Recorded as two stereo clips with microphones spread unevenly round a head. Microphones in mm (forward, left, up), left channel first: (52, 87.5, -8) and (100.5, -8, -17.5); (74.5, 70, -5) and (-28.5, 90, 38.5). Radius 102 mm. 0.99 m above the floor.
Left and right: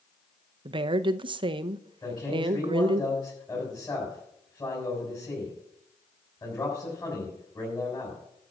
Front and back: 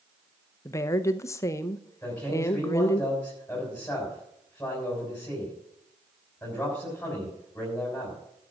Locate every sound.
0.7 s a woman speaking: 45° right, 0.6 m
2.0 s a man speaking: 65° left, 6 m